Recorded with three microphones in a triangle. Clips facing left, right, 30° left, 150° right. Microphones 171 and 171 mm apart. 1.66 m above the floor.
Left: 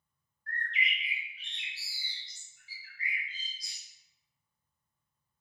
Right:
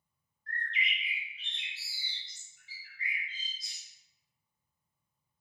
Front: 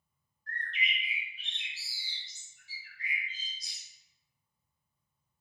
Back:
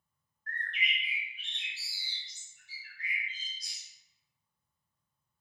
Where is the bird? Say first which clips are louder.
Left 1 dB, front 1 dB; 155° right, 1.0 m.